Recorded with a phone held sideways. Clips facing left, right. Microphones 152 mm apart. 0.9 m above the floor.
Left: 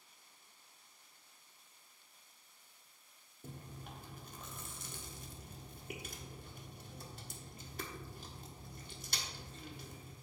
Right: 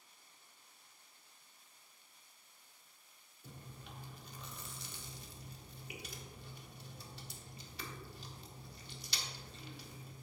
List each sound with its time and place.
3.4 s chewing: 50° left (ahead or behind), 1.1 m